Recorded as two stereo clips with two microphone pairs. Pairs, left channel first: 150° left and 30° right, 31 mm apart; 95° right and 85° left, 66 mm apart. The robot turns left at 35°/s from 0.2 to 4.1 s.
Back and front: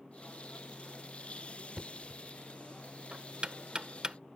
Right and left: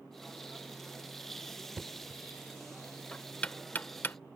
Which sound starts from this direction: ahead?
Knocking, at 1.8 s.